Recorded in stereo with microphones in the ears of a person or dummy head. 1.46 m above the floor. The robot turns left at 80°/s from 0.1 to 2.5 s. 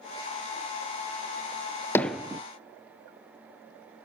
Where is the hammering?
15° left (ahead or behind), 0.7 m; by 2.4 s 20° right (ahead or behind), 0.7 m.